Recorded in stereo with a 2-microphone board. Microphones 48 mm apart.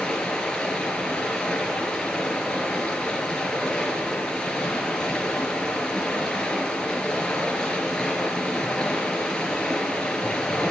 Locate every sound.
0.0 s running water: 15° left (ahead or behind), 3.5 m